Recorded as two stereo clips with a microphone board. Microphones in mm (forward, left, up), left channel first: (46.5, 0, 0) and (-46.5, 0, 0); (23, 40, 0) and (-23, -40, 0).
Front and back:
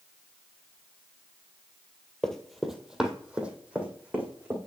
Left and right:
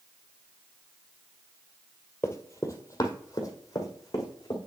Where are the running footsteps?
75° left, 1.2 m; by 4.6 s 110° left, 3 m.